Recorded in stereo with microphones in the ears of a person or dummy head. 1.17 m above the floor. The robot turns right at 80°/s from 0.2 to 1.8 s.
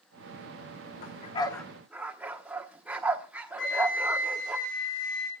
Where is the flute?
65° left (ahead or behind), 4 m.